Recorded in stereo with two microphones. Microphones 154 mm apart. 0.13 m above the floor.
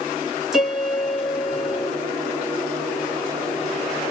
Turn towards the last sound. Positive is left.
turn(degrees=-5)  # may be behind; listen again after turning